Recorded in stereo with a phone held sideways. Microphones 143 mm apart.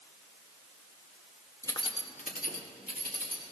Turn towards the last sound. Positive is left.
turn(degrees=85)